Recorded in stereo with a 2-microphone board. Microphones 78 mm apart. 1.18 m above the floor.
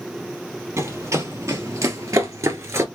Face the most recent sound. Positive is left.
turn(degrees=-35)  # may be behind; listen again after turning